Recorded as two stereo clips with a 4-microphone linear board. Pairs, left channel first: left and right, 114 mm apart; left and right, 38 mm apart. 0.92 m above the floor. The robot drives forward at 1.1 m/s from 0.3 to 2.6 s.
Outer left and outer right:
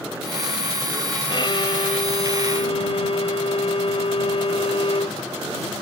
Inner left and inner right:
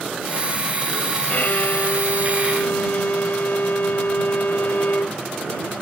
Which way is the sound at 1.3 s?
45° left (ahead or behind).